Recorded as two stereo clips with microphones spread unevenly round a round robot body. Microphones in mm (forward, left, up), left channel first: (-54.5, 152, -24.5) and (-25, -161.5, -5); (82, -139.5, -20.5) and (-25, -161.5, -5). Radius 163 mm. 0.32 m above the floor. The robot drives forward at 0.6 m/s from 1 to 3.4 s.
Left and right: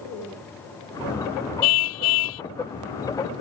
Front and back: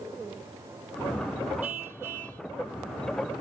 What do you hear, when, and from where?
1.6 s a car horn: 105° left; by 2.4 s 110° left